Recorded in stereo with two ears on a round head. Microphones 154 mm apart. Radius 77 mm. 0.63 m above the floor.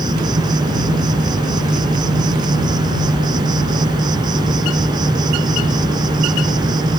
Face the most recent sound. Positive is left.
turn(degrees=-25)  # may be behind; listen again after turning